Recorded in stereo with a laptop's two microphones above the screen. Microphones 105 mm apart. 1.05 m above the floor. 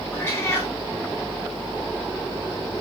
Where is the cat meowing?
25° left (ahead or behind), 3.5 m.